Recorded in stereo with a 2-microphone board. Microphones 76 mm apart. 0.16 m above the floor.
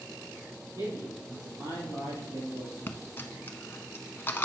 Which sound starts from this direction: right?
A man speaking, at 0.8 s.